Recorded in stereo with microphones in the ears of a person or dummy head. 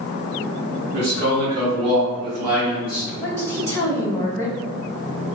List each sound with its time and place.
0.9 s a man speaking: 55° right (ahead or behind), 1.7 m; by 3.1 s 5° right (ahead or behind), 1.4 m
3.2 s a woman speaking: 10° left (ahead or behind), 0.8 m